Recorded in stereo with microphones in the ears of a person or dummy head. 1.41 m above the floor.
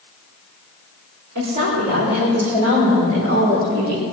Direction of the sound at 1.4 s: 55° right (ahead or behind).